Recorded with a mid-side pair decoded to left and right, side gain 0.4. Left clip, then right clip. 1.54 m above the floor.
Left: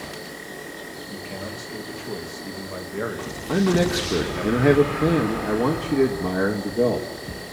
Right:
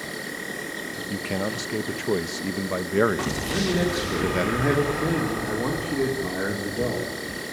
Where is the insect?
50° right, 6 m.